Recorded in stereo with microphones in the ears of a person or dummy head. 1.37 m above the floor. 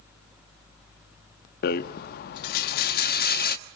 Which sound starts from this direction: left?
A rattle, at 1.6 s.